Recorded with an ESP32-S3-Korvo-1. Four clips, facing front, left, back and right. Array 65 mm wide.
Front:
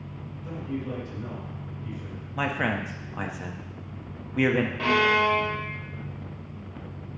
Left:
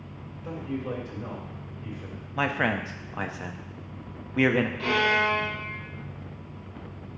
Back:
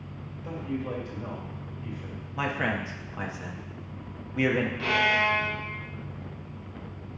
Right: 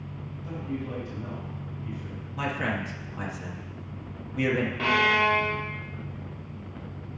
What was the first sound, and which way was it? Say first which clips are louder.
A man speaking: left 2 dB, even; 120° left.